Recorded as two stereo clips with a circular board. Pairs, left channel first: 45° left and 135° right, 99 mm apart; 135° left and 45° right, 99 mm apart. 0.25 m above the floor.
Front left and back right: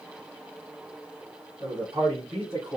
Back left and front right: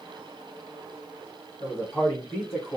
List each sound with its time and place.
1.6 s a man speaking: 155° right, 2 m; by 2.8 s 125° right, 1.4 m